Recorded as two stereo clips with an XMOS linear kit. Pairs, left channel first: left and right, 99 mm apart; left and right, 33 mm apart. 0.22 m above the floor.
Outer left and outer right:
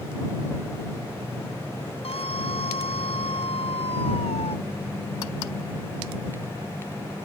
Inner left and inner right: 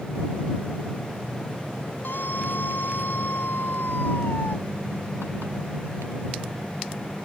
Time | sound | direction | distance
2.0 | a scream | 80° left | ?